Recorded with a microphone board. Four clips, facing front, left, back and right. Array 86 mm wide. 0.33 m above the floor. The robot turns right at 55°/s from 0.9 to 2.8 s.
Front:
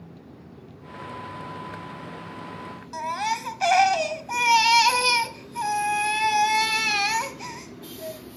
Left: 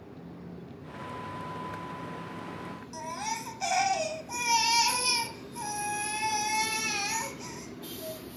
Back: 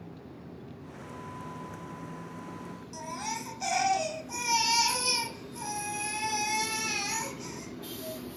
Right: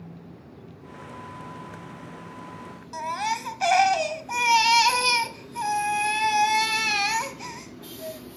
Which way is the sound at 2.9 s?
35° right.